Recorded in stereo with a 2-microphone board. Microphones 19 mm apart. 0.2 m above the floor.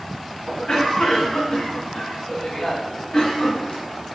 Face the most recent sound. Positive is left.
turn(degrees=45)  # may be behind; listen again after turning